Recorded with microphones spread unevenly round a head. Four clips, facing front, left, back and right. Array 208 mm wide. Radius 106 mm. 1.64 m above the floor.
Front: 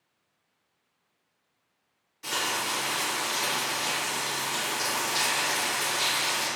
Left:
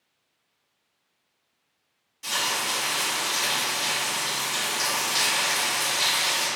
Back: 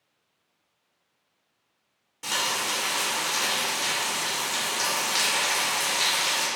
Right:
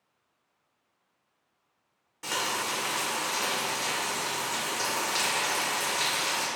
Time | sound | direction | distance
2.2 | frying | 145° right | 1.4 m